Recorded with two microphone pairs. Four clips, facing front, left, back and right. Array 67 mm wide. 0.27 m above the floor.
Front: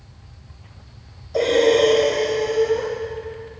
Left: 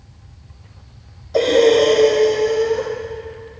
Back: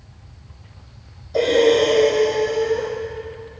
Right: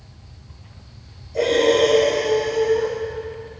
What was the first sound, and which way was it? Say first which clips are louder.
Breathing: left 4 dB, back 1 dB; 80° left.